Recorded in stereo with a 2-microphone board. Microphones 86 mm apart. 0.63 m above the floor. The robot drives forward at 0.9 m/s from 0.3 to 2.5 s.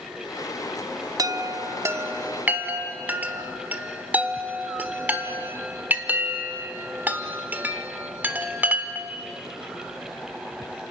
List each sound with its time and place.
1.2 s a chime: 45° right (ahead or behind), 0.6 m; by 9.1 s 20° right (ahead or behind), 1.3 m